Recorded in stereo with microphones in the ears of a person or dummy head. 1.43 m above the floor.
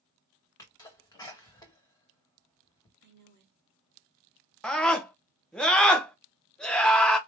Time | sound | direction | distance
0.6 | a sneeze | 20° left (ahead or behind) | 1.6 m
3.0 | a woman speaking | 55° right (ahead or behind) | 1.3 m
4.6 | a scream | 5° left (ahead or behind) | 0.8 m